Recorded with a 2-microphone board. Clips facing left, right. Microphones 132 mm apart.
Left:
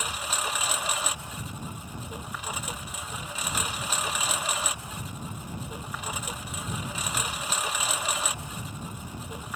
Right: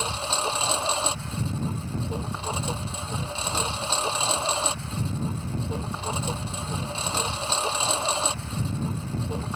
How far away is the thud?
No thud in this recording.